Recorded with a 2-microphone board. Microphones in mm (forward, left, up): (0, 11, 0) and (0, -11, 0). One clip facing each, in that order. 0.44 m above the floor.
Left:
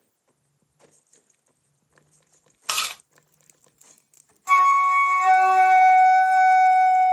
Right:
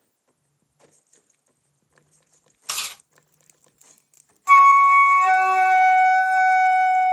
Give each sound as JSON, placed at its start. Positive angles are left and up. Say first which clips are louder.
{"t": 2.7, "sound": "chewing", "louder": "left 4 dB", "side_deg": 55, "distance_m": 0.8}
{"t": 4.5, "sound": "a flute", "louder": "right 5 dB", "side_deg": -30, "distance_m": 0.5}